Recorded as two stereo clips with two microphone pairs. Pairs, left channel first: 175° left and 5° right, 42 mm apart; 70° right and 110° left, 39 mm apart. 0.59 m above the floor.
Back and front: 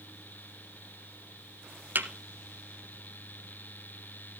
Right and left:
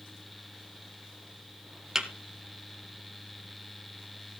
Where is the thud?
35° left, 1.6 m.